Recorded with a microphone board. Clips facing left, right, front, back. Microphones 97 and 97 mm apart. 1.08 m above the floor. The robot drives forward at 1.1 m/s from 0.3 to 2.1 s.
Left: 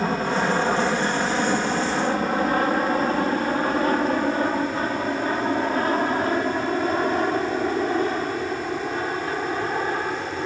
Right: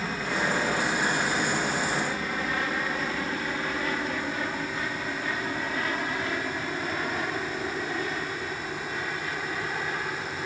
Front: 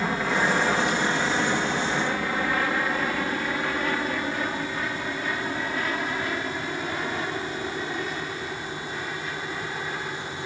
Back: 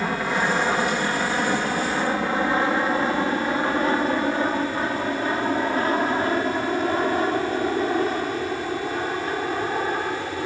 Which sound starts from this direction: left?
An aircraft, at 0.0 s.